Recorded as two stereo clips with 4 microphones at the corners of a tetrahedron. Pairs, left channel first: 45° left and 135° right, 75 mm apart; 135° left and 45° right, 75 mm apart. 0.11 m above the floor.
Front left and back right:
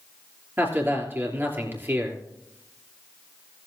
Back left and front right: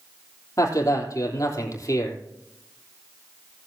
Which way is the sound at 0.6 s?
165° left.